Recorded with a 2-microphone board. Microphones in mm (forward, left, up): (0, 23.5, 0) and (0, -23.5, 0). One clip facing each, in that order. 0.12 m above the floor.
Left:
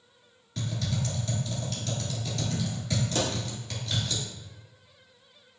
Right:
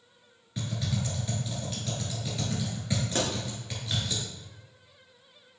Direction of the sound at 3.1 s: 35° right (ahead or behind).